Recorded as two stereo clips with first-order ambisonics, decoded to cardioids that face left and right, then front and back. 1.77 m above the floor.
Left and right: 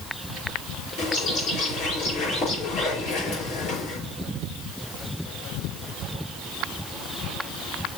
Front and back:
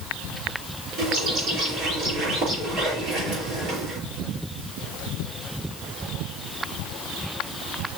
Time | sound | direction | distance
1.0 | a bird | 115° left | 5.5 m